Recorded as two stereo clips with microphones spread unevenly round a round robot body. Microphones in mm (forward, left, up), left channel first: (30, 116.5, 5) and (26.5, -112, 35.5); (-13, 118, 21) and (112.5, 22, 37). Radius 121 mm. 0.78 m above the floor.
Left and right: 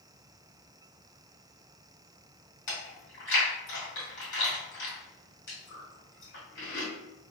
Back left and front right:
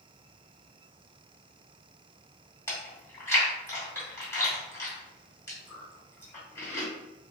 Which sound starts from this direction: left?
Chewing, at 2.7 s.